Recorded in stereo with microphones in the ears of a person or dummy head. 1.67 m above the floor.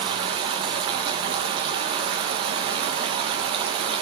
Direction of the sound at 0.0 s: 35° right (ahead or behind).